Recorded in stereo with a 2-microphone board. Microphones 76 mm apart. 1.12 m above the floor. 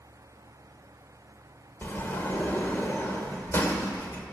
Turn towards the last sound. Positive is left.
turn(degrees=35)  # may be behind; listen again after turning